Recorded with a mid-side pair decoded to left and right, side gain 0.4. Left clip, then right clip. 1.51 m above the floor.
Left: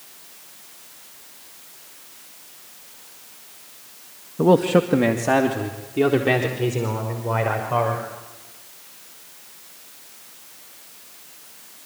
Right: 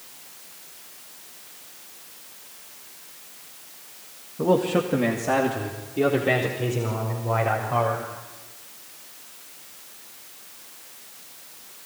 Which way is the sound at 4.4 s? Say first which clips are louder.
Left 5 dB; 50° left.